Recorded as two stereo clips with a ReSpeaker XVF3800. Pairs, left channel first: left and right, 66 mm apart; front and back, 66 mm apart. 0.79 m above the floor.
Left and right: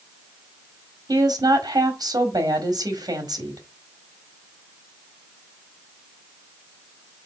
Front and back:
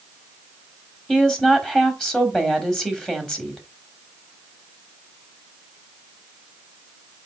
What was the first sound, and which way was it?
A woman speaking, 80° right.